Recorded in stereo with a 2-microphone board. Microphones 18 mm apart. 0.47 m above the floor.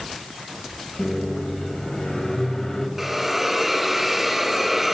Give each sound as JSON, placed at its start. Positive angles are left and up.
{"t": 1.0, "sound": "a microwave", "side_deg": 30, "distance_m": 1.9}
{"t": 3.0, "sound": "a hiss", "side_deg": -10, "distance_m": 0.7}